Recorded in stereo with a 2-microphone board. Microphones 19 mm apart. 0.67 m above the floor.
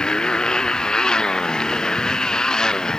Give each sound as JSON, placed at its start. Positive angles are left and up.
{"t": 0.0, "sound": "a motorcycle", "side_deg": 45}